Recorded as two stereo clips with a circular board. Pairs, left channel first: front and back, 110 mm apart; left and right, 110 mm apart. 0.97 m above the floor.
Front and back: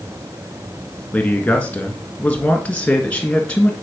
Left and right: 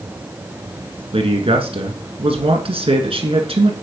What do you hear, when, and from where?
1.1 s a man speaking: 75° right, 1.6 m